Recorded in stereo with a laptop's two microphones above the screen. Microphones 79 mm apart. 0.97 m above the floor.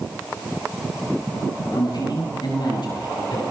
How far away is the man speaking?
About 9.5 m.